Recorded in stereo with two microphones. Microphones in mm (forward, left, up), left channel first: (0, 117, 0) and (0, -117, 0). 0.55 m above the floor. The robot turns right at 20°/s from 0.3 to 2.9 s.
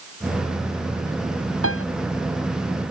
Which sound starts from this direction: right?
A piano, at 1.6 s.